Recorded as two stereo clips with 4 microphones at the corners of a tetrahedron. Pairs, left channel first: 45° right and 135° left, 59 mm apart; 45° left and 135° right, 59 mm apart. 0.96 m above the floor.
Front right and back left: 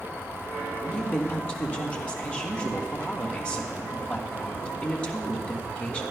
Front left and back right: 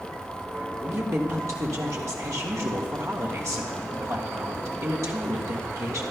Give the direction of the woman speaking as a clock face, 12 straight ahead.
4 o'clock.